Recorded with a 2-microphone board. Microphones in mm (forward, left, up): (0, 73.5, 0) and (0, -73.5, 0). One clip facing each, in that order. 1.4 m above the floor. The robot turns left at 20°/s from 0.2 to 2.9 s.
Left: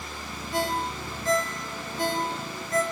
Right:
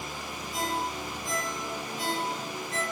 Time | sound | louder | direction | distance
0.5 | a ringtone | left 4 dB | 85° left | 4 m